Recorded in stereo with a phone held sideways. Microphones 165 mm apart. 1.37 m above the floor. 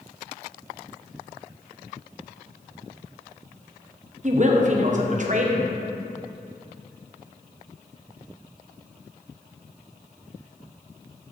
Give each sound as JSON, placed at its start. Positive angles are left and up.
{"t": 4.2, "sound": "a woman speaking", "side_deg": -50, "distance_m": 1.0}